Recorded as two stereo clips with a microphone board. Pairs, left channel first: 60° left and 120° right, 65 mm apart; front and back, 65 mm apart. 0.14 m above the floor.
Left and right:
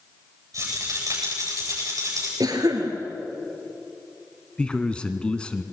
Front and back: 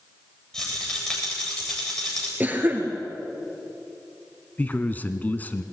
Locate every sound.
0.5 s a rattle: 80° right, 8 m
2.4 s a cough: 120° right, 2.5 m
4.6 s a man speaking: 5° left, 1.1 m